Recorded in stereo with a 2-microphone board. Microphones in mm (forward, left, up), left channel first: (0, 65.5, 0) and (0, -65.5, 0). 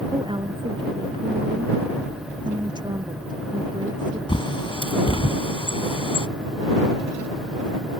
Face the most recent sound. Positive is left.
turn(degrees=40)  # may be behind; listen again after turning